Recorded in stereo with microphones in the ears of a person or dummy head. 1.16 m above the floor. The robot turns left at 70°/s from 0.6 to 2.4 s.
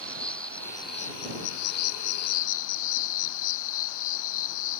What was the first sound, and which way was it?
An insect, 175° left.